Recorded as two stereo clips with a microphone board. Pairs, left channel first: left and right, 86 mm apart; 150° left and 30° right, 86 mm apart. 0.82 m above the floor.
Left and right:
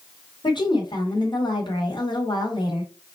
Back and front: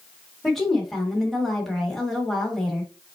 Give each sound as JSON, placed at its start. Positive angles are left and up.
{"t": 0.4, "sound": "a woman speaking", "azimuth_deg": 60, "distance_m": 1.9}